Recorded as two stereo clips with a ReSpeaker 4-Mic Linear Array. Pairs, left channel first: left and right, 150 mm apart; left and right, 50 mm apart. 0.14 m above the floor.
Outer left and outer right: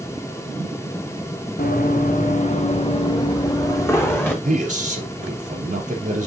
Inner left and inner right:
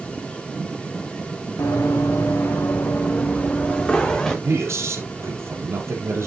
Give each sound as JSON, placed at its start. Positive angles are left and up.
{"t": 1.6, "sound": "running footsteps", "side_deg": 75, "distance_m": 1.4}
{"t": 4.4, "sound": "a man speaking", "side_deg": -55, "distance_m": 3.0}